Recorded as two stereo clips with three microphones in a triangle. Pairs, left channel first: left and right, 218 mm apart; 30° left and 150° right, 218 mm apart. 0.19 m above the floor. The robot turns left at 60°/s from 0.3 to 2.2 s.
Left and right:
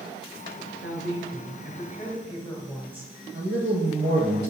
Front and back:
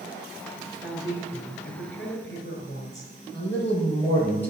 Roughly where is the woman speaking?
Left.